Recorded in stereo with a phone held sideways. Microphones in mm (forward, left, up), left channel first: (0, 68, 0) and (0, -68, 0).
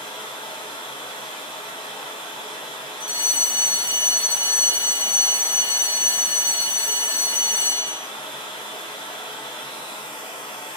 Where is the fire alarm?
25° right (ahead or behind), 1.2 m.